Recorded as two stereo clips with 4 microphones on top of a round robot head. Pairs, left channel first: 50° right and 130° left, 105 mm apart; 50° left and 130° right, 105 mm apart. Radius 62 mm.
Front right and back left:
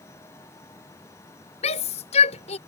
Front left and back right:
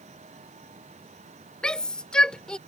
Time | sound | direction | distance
1.6 | a shout | 30° right | ?